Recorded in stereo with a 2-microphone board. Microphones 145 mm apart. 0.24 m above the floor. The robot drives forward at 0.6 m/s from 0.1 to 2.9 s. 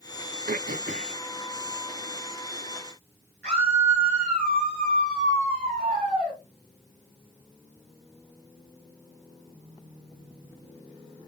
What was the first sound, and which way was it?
Throat clearing, 75° right (ahead or behind).